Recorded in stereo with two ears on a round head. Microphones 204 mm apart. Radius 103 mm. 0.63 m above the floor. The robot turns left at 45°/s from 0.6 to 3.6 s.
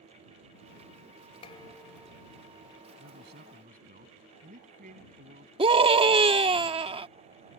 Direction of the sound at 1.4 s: 25° left.